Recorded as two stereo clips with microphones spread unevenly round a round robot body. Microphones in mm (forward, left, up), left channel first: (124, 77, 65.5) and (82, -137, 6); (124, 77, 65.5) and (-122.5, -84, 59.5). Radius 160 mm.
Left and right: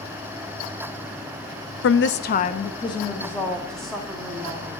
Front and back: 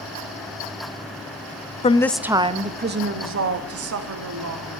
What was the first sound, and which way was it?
A woman speaking, 95° left.